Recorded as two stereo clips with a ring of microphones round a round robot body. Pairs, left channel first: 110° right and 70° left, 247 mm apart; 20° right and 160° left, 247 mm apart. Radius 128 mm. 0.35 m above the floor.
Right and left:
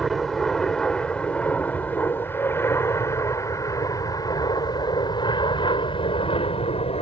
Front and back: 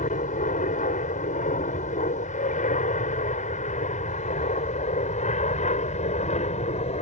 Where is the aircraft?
25° right; by 7.0 s 65° right.